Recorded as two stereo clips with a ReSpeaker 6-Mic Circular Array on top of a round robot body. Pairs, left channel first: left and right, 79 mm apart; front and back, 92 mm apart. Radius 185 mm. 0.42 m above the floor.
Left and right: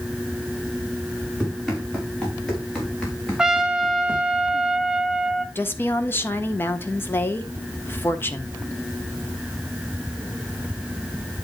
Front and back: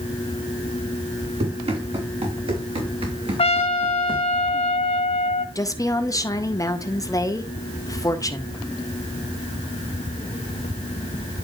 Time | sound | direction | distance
1.4 | running footsteps | straight behind | 5.5 m
3.4 | a trumpet | 10° right | 0.6 m
5.5 | a woman speaking | 35° left | 1.7 m